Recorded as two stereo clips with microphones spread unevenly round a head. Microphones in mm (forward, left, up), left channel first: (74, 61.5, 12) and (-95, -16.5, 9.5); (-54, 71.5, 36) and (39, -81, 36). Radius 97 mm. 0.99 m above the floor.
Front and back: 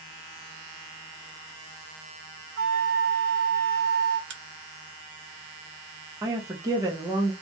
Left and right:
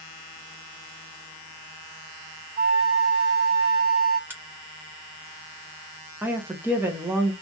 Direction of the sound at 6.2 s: 120° right.